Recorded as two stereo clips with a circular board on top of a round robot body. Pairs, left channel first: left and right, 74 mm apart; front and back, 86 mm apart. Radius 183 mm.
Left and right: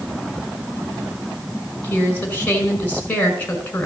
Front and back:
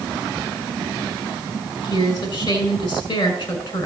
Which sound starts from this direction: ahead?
A woman speaking, at 1.8 s.